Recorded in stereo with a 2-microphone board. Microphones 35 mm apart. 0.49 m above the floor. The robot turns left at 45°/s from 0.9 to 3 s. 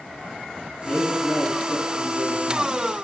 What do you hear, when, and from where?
0.9 s a man speaking: 125° left, 6 m; by 2.8 s 40° left, 6 m